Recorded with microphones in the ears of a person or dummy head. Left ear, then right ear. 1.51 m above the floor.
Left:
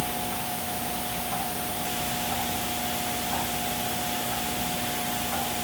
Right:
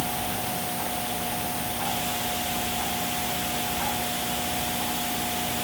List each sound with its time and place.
Only background noise.